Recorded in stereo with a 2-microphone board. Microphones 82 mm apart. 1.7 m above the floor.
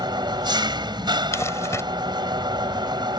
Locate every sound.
0.0 s an engine running: 70° right (ahead or behind)
1.3 s crumpling: 40° left (ahead or behind)